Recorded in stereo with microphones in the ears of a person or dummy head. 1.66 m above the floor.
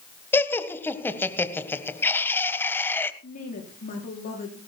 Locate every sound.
0.3 s laughter: 5° left (ahead or behind), 1.3 m
3.2 s a woman speaking: 45° left (ahead or behind), 4.5 m